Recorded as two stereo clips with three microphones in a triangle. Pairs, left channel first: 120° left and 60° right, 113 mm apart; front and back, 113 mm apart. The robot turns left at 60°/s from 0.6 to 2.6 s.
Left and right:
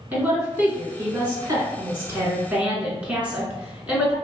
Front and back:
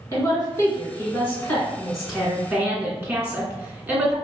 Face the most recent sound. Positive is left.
turn(degrees=-120)